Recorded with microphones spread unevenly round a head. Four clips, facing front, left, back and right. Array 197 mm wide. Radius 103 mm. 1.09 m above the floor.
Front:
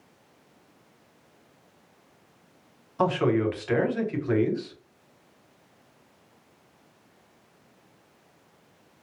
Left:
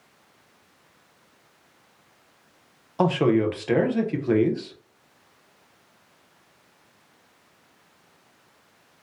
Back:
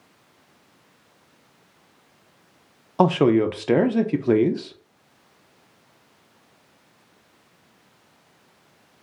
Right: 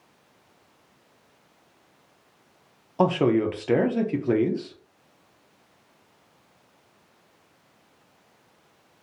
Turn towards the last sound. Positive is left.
turn(degrees=175)